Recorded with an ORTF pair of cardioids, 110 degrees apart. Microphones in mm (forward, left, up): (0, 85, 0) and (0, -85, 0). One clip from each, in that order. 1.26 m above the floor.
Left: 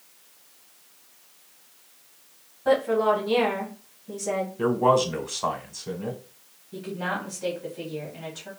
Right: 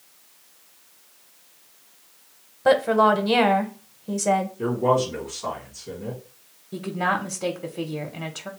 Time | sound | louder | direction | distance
2.6 | a woman speaking | right 4 dB | 60° right | 0.8 m
4.6 | a man speaking | left 1 dB | 65° left | 1.3 m
6.7 | a woman speaking | right 6 dB | 50° right | 0.7 m